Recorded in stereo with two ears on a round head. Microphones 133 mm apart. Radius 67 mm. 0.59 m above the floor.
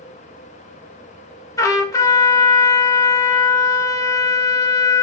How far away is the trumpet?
About 1.3 m.